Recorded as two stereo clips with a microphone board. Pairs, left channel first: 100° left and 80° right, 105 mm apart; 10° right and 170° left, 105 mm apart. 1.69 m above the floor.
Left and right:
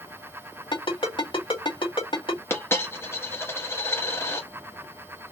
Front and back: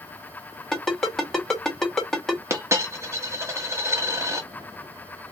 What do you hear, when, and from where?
0.7 s a ringtone: 75° left, 2 m
2.5 s a dropped coin: 140° left, 1.1 m